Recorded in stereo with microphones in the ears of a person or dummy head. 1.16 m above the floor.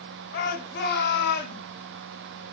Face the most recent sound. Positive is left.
turn(degrees=60)  # may be behind; listen again after turning